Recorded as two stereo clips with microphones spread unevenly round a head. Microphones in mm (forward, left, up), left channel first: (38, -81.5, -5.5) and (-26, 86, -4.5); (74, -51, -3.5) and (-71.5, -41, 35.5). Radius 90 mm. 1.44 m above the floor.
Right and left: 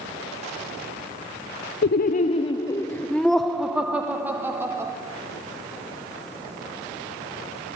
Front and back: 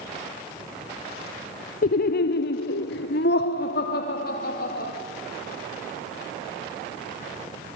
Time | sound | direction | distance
1.8 | laughter | 35° right | 0.6 m